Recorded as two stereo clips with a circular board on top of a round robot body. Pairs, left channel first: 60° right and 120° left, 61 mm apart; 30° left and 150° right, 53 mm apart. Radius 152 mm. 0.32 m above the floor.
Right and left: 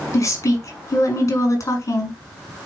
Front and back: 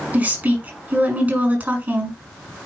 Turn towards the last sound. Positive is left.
turn(degrees=-95)